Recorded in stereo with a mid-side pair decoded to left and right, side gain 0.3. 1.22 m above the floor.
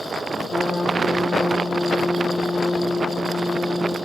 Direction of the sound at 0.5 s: 60° left.